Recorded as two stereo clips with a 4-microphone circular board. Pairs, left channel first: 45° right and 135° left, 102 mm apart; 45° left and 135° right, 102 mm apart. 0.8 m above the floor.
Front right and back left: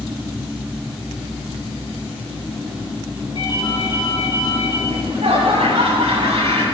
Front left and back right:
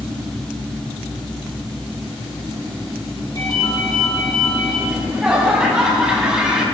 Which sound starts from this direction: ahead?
A ringtone, at 3.4 s.